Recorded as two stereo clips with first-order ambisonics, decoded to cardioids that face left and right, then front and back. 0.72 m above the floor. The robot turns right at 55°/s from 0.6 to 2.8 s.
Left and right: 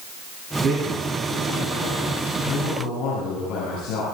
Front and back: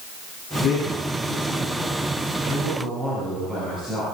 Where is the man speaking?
25° right, 8 m; by 4.0 s 100° left, 8 m.